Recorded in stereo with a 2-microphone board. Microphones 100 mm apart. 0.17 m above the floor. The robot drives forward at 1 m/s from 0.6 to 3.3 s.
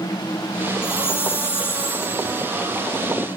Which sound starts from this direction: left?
A chime, at 0.8 s.